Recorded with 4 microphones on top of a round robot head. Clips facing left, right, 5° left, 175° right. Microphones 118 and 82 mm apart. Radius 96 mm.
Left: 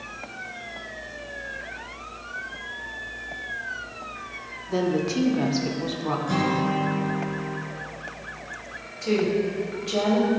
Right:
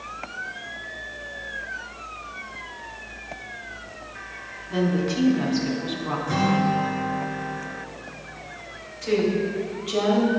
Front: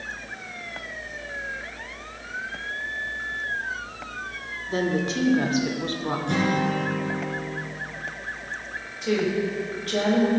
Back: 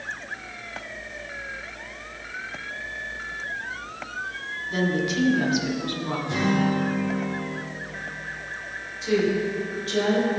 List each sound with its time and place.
4.7 s a woman speaking: 50° left, 1.7 m
6.3 s a guitar: 25° left, 3.5 m
9.0 s a woman speaking: 35° left, 3.5 m